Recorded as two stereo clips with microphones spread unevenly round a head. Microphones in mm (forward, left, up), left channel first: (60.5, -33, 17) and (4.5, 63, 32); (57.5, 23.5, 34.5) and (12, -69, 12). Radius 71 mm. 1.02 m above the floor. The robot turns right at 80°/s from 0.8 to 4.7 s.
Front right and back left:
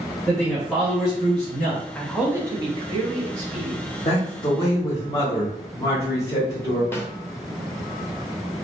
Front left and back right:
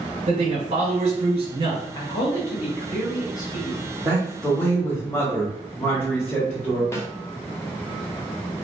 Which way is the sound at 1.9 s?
15° left.